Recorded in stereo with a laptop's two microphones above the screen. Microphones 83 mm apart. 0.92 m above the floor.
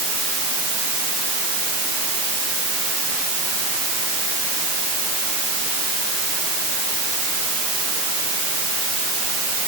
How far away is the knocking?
I don't hear knocking.